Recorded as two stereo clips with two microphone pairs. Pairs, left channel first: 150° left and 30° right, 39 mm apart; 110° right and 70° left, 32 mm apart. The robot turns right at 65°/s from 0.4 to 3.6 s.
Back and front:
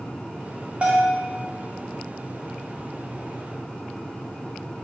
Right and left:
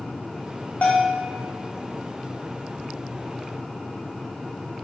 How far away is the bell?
About 0.7 m.